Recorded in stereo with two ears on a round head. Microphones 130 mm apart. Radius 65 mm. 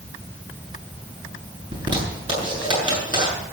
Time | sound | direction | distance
1.7 | a zipper | 30° right (ahead or behind) | 8 m